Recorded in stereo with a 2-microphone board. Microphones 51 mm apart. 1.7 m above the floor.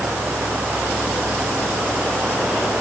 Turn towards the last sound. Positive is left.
No sound to turn to.